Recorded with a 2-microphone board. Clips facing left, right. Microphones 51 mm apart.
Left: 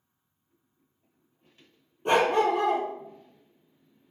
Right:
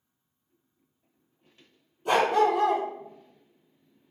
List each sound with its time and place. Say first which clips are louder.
2.0 s a dog barking: even; 40° left (ahead or behind), 1.4 m